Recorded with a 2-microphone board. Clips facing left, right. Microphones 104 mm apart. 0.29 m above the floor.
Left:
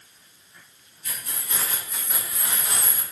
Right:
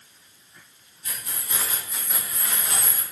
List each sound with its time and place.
1.0 s keys jangling: 30° right (ahead or behind), 1.3 m; by 3.0 s 35° left (ahead or behind), 1.3 m